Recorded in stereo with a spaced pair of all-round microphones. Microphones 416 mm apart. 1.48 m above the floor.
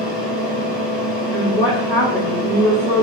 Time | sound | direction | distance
0.0 | a fan | 75° left (ahead or behind) | 1.2 m
1.3 | a woman speaking | 30° right (ahead or behind) | 1.9 m